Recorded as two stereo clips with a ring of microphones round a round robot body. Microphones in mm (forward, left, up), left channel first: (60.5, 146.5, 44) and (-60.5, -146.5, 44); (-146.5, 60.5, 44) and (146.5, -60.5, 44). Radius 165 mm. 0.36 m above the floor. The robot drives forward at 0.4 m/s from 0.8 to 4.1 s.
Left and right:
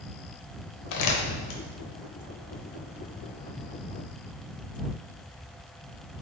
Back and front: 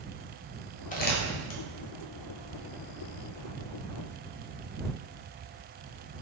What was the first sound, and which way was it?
Crumpling, 90° left.